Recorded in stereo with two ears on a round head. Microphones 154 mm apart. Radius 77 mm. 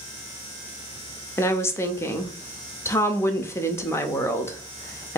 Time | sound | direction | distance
1.4 | a woman speaking | 15° left (ahead or behind) | 0.5 m